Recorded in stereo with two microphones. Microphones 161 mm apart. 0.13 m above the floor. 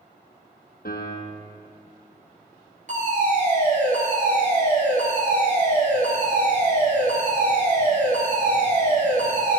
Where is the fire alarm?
50° right (ahead or behind), 3.5 m.